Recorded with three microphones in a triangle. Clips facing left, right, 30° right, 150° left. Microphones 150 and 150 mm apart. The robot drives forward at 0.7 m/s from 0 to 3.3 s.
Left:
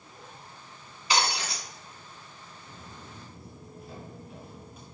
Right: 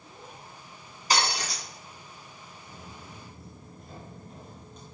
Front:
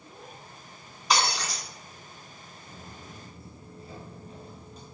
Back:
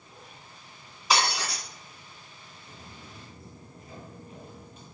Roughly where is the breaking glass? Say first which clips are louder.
Even, even; behind right.